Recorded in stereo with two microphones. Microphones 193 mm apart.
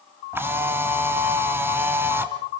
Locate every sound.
0.3 s a camera shutter: 10° right (ahead or behind), 2 m